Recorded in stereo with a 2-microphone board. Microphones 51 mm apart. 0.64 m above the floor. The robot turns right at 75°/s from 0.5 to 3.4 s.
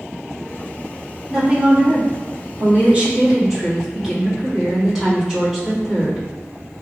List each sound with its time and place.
1.3 s a woman speaking: 170° right, 1.0 m; by 6.3 s 15° right, 1.0 m